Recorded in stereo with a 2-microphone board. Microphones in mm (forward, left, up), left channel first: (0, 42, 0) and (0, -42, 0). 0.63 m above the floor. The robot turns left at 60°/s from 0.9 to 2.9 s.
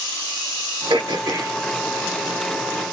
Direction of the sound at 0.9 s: 100° right.